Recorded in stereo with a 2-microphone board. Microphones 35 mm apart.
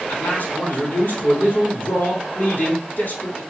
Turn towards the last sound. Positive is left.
turn(degrees=70)  # may be behind; listen again after turning